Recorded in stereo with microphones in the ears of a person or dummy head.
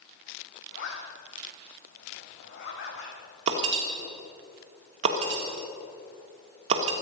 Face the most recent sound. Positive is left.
turn(degrees=-30)  # may be behind; listen again after turning